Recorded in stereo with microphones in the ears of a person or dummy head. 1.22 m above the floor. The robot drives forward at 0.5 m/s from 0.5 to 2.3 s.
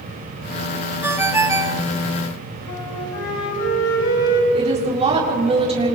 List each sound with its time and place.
1.0 s a ringtone: 10° right (ahead or behind), 1.2 m; by 1.8 s 15° right (ahead or behind), 0.8 m
2.7 s a flute: 70° left (ahead or behind), 5.5 m
4.5 s a woman speaking: 25° right (ahead or behind), 4 m